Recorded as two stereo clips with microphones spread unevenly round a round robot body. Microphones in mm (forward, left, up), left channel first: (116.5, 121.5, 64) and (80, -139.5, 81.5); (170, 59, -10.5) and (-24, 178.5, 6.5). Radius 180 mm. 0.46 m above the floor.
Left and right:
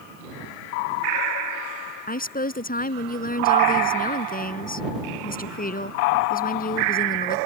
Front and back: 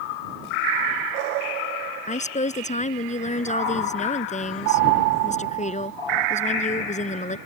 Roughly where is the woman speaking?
Ahead left.